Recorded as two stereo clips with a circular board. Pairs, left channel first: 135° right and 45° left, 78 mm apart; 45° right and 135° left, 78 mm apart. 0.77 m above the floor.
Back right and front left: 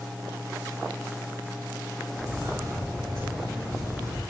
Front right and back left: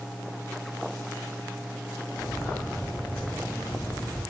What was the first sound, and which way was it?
Footsteps, 10° left.